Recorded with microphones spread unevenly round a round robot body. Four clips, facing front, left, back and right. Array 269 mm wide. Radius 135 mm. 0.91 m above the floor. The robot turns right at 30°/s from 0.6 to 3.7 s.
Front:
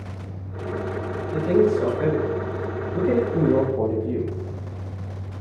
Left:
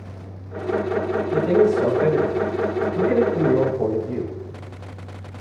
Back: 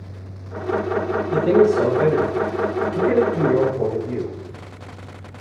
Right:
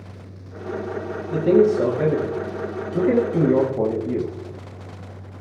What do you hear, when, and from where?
1.3 s a man speaking: 135° right, 8.5 m; by 4.3 s 60° right, 8.5 m